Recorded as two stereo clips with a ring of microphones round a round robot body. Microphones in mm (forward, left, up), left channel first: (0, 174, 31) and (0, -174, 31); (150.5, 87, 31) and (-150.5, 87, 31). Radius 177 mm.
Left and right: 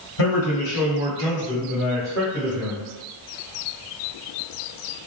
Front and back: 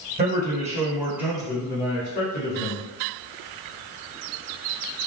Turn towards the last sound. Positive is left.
turn(degrees=5)